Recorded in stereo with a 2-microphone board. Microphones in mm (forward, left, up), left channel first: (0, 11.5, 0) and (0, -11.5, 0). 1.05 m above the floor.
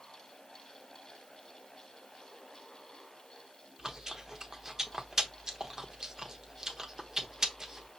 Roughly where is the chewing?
Right.